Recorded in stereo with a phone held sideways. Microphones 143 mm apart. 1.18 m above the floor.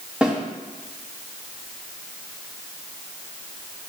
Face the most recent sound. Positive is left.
turn(degrees=-5)  # may be behind; listen again after turning